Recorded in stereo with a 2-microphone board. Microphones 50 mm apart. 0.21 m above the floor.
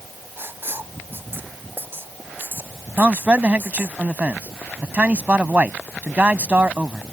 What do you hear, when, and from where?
0.4 s writing: 45° right (ahead or behind)
3.0 s a man speaking: 30° right (ahead or behind)